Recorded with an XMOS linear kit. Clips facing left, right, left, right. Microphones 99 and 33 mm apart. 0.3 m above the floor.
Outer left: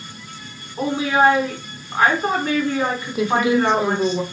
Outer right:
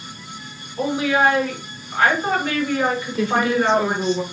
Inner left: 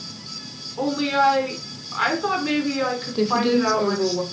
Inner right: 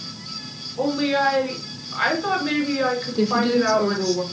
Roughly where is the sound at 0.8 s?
Left.